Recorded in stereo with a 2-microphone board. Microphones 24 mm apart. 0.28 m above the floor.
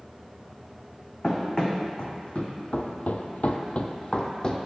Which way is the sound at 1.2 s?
30° left (ahead or behind).